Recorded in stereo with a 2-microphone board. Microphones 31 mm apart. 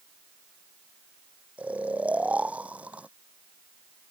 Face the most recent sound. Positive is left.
turn(degrees=-45)  # may be behind; listen again after turning